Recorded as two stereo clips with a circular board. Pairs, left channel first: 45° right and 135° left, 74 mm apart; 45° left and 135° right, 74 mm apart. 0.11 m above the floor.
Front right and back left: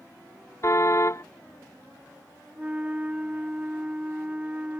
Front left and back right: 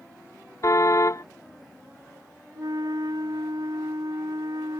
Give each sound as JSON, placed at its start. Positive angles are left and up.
{"t": 0.6, "sound": "a car horn", "azimuth_deg": 0}
{"t": 2.5, "sound": "a flute", "azimuth_deg": -155}